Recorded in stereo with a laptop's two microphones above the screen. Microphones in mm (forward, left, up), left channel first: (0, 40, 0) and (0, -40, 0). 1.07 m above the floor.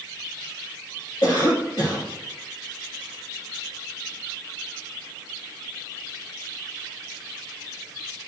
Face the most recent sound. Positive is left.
turn(degrees=60)  # may be behind; listen again after turning